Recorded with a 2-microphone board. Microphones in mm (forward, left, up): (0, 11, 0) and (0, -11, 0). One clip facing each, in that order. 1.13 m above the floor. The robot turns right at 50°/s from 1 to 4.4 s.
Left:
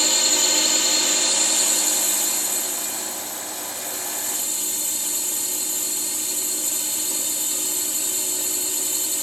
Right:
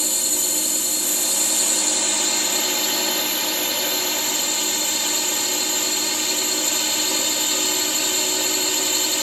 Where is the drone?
145° left; by 9.2 s 45° right.